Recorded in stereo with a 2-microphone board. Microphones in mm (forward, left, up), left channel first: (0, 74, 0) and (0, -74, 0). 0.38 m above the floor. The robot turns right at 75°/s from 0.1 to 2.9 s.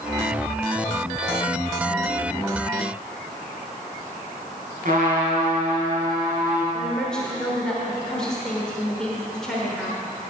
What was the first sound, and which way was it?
A trumpet, 70° right (ahead or behind).